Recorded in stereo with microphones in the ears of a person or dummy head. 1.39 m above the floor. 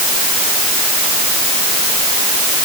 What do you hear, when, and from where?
Only background noise.